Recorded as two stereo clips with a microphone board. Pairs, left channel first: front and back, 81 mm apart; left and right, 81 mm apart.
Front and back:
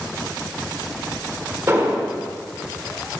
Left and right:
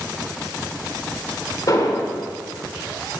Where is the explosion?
125° left, 1.9 m.